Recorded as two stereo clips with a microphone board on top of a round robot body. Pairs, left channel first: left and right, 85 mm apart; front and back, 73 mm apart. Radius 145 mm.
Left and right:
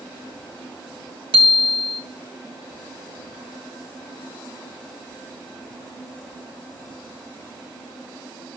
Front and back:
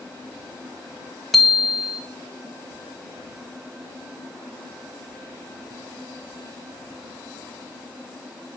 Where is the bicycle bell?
90° right, 2.5 m.